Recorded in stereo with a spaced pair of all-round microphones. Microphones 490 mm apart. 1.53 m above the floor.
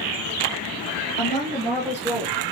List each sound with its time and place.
1.2 s a woman speaking: 20° left (ahead or behind), 2 m; by 2.4 s 40° right (ahead or behind), 1.0 m